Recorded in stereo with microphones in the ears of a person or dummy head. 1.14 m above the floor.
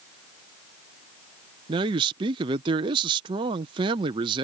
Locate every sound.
1.7 s a man speaking: 20° right (ahead or behind)